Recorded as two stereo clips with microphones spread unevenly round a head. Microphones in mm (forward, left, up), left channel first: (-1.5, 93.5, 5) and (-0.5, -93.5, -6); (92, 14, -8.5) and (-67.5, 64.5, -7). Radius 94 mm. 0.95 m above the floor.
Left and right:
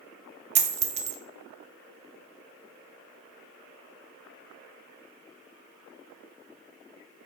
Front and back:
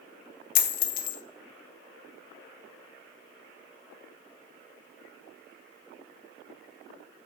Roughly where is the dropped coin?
Ahead right.